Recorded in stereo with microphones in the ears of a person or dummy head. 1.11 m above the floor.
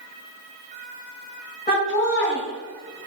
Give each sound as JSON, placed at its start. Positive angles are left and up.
{"t": 1.7, "sound": "laughter", "side_deg": 35, "distance_m": 1.7}